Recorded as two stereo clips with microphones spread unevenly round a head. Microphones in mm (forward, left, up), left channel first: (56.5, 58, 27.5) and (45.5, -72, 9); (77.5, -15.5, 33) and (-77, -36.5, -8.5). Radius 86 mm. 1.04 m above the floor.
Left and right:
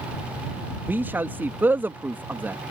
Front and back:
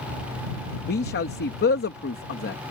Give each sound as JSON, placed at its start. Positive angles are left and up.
{"t": 0.9, "sound": "a man speaking", "azimuth_deg": -20}